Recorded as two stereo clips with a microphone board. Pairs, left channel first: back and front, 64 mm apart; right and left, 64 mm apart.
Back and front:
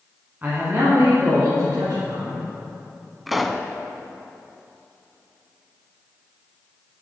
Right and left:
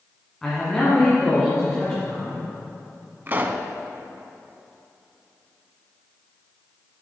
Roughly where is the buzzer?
I don't hear a buzzer.